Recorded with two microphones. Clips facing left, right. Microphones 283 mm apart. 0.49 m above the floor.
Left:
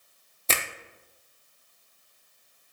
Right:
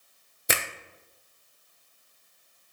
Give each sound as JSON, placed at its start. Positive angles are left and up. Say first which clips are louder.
{"t": 0.5, "sound": "a finger snap", "louder": "right 2 dB", "side_deg": -15, "distance_m": 0.6}